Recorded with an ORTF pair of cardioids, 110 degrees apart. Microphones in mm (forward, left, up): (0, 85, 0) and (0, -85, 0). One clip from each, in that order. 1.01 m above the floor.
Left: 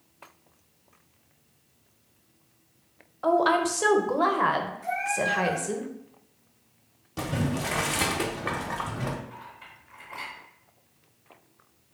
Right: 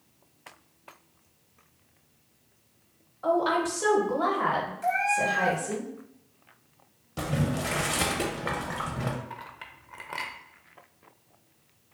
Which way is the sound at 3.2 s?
30° left.